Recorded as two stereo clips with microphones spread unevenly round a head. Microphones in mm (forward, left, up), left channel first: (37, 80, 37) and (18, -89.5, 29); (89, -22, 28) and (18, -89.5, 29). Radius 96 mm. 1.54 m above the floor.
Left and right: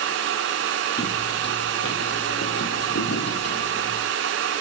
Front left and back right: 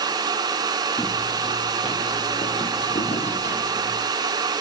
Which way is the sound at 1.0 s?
110° left.